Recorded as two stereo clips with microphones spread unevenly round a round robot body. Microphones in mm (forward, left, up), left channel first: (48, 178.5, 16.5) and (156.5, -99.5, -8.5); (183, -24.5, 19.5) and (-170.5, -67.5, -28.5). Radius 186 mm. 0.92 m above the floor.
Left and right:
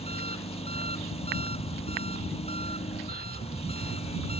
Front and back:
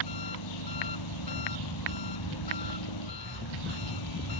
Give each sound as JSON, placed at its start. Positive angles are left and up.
{"t": 0.0, "sound": "an engine running", "azimuth_deg": 40}